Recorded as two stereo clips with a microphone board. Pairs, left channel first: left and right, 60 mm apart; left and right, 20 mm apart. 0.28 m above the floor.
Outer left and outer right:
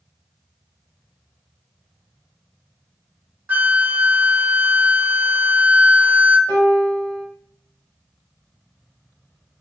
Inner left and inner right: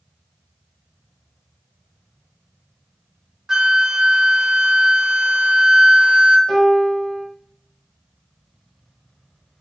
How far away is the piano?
About 1.8 m.